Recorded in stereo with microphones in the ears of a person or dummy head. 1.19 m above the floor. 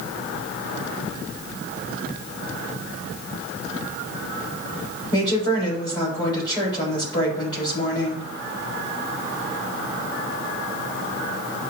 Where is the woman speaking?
20° left (ahead or behind), 4 m.